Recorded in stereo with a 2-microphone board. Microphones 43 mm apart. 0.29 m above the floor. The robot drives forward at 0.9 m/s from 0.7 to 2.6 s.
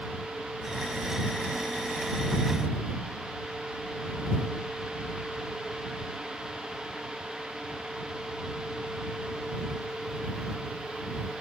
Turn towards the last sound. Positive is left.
No sound to turn to.